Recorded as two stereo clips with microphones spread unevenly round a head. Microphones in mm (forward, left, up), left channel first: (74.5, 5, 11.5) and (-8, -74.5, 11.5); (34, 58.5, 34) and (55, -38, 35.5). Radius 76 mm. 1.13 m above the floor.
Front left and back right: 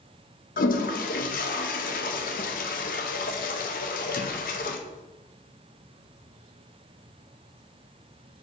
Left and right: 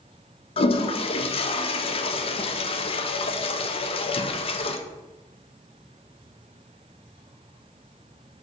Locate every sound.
0.6 s a toilet flushing: 75° left, 0.7 m